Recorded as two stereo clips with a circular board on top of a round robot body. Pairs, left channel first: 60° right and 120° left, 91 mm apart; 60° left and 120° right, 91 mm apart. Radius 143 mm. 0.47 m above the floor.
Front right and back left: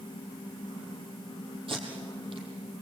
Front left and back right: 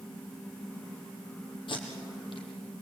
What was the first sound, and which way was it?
Tape being pulled, 90° left.